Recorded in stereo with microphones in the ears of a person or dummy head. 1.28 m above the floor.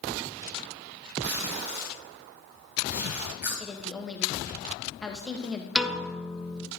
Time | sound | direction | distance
1.2 | tape being pulled | 20° right (ahead or behind) | 1.9 m
3.6 | a woman speaking | centre (ahead or behind) | 1.4 m
5.8 | a piano | centre (ahead or behind) | 0.6 m